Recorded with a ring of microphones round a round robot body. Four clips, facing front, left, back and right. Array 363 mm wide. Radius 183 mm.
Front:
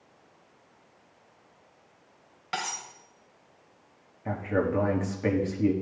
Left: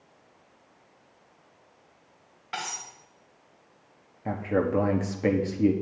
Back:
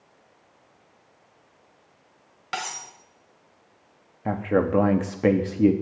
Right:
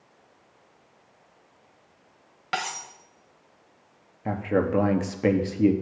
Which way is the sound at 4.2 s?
170° right.